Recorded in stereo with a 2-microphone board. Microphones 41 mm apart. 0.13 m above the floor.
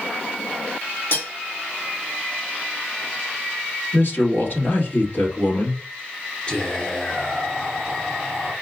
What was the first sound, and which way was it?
Cutlery clinking, 65° left (ahead or behind).